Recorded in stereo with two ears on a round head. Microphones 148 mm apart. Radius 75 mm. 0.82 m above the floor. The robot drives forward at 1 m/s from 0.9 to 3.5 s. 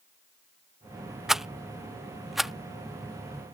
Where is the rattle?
5° right (ahead or behind); by 2.5 s centre (ahead or behind).